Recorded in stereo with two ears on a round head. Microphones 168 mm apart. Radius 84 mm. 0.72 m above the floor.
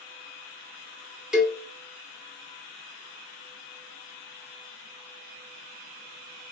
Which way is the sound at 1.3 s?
5° right (ahead or behind).